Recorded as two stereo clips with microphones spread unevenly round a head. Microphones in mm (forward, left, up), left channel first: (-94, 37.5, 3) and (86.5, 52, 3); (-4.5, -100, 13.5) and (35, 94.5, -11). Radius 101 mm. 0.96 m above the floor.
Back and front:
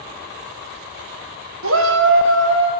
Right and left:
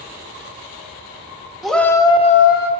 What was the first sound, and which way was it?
A shout, 10° right.